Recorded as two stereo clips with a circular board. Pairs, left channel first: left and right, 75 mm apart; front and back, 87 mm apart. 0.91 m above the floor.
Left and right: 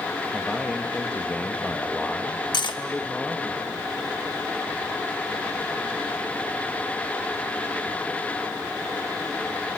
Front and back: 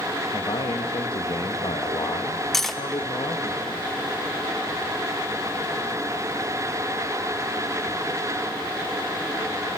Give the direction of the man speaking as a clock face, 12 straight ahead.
11 o'clock.